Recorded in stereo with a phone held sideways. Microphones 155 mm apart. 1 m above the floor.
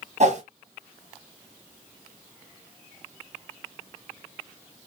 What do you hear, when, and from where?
0.2 s a whoosh: 50° right (ahead or behind), 1.4 m